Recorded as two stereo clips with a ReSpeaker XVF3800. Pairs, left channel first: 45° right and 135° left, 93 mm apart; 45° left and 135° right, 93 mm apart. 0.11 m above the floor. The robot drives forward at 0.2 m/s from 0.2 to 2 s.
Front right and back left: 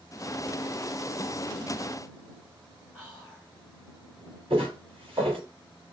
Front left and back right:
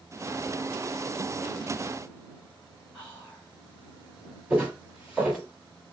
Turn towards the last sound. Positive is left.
turn(degrees=145)